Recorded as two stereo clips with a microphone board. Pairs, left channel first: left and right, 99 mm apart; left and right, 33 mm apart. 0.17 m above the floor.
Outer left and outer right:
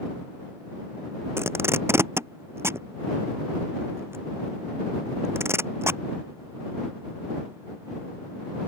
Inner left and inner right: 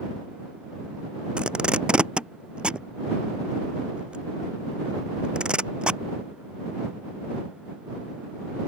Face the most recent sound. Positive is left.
turn(degrees=-25)  # may be behind; listen again after turning